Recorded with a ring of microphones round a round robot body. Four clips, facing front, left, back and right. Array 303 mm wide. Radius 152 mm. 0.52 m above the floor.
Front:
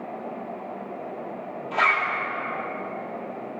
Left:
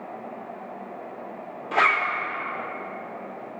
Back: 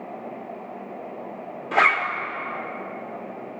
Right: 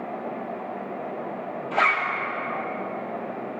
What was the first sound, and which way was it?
A zipper, 155° left.